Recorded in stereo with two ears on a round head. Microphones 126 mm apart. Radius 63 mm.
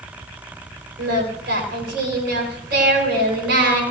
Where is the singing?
70° right (ahead or behind), 6 m.